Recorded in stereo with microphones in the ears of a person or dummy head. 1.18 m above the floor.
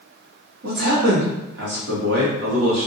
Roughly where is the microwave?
No microwave in this recording.